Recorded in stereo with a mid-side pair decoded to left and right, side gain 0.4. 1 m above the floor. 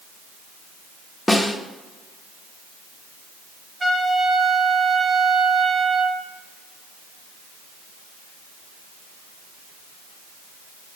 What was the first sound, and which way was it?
A snare drum, 5° left.